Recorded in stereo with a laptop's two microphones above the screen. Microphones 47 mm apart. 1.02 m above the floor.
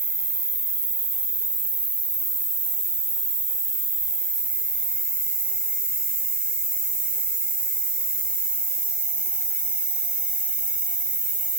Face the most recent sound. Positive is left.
turn(degrees=-25)  # may be behind; listen again after turning